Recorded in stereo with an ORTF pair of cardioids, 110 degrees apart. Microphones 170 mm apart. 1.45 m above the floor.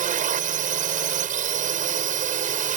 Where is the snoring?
No snoring in this recording.